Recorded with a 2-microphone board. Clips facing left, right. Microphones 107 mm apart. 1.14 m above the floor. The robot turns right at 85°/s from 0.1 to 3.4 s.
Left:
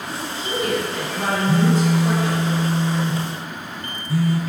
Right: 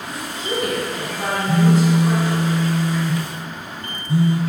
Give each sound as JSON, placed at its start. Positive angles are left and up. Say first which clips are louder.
{"t": 0.1, "sound": "a woman speaking", "louder": "right 1 dB", "azimuth_deg": -105, "distance_m": 1.9}
{"t": 1.5, "sound": "a phone buzzing", "louder": "right 3 dB", "azimuth_deg": 160, "distance_m": 0.5}